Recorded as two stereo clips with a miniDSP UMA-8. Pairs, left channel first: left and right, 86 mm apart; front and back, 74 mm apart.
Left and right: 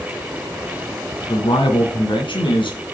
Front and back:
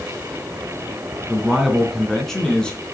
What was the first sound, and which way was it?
A man speaking, 95° left.